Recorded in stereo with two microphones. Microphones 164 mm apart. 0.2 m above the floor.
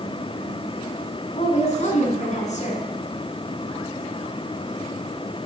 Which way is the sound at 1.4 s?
45° left (ahead or behind).